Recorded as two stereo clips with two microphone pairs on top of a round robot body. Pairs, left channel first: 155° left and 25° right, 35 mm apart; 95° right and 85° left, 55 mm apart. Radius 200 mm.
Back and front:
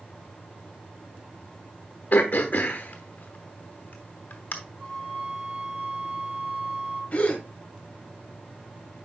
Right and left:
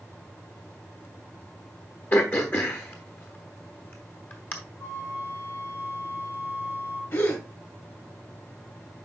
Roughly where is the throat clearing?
Behind right.